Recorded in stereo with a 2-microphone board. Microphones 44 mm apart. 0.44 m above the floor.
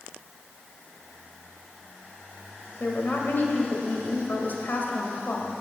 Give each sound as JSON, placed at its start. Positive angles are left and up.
{"t": 2.8, "sound": "a woman speaking", "side_deg": 45, "distance_m": 1.7}